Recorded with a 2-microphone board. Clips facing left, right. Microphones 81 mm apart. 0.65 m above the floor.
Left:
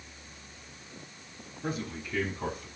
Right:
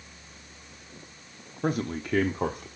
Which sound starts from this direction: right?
A man speaking, at 1.6 s.